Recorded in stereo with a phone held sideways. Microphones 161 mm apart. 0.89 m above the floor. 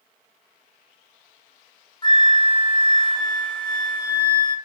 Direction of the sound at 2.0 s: 30° left (ahead or behind).